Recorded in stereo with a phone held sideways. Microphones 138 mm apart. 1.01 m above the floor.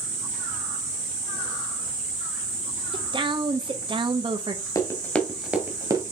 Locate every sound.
2.9 s a woman speaking: 35° right (ahead or behind), 0.8 m
4.8 s running footsteps: 25° left (ahead or behind), 1.1 m; by 6.0 s 30° right (ahead or behind), 1.2 m